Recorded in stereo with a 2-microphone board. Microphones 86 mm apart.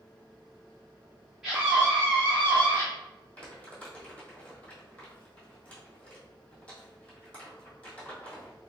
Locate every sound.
1.4 s a scream: 5° right (ahead or behind), 1.4 m; by 2.9 s 30° left (ahead or behind), 1.2 m
3.4 s crumpling: 15° left (ahead or behind), 1.2 m